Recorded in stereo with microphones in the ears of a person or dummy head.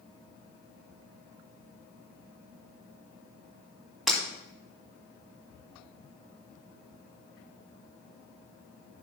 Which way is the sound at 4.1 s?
Centre (ahead or behind).